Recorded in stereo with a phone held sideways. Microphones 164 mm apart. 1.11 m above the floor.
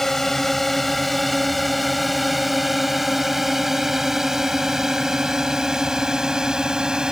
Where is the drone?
Centre (ahead or behind); by 7.1 s 5° right (ahead or behind).